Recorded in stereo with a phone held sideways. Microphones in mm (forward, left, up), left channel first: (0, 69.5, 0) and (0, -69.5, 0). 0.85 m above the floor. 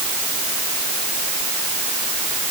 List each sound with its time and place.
Only background noise.